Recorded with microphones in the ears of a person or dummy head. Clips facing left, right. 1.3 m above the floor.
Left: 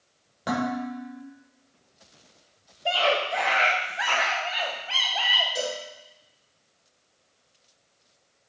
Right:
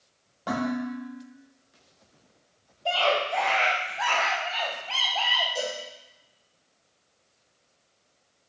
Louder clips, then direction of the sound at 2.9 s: Even; 20° left (ahead or behind).